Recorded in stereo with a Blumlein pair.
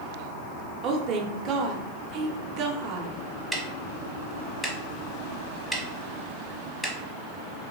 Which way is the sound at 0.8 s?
35° right.